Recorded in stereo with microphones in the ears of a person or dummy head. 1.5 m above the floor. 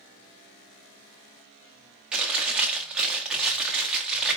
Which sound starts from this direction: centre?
Chewing, at 2.1 s.